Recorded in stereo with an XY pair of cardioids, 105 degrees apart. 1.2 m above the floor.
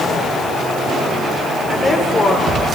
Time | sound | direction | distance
1.7 | a woman speaking | 25° left | 3 m